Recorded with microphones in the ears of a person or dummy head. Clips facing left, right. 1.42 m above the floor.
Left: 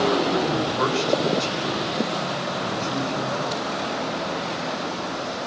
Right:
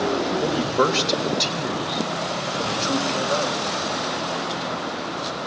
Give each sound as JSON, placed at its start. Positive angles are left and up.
{"t": 0.4, "sound": "a man speaking", "side_deg": -75, "distance_m": 5.5}